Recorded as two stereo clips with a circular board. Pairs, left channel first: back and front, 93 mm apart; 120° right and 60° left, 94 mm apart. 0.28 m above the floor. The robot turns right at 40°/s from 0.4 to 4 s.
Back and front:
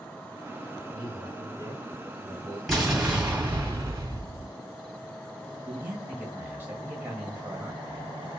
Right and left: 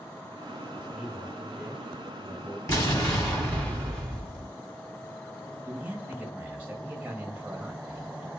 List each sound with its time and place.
0.9 s a man speaking: 35° right, 1.5 m; by 2.6 s 30° left, 1.5 m
2.7 s an explosion: 85° right, 1.6 m; by 4.5 s 35° right, 1.6 m
5.7 s a man speaking: 20° left, 1.1 m